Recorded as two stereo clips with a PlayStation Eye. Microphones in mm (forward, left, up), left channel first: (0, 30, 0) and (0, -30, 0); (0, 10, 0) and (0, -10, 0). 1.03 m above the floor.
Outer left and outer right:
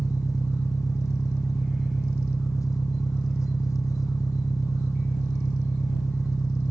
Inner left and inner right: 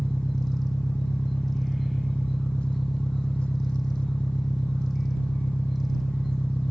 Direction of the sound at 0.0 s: 70° left (ahead or behind).